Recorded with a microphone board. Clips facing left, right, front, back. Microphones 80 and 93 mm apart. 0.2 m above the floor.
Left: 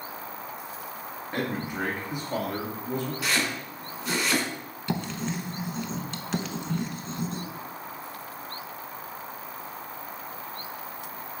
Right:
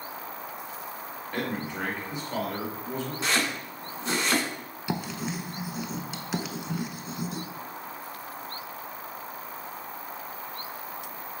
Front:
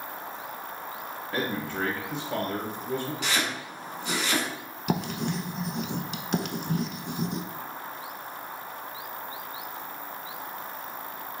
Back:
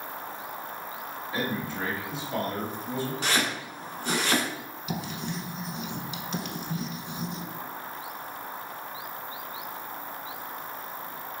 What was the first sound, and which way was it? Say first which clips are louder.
A man speaking: left 1 dB, front 1 dB; 15° left.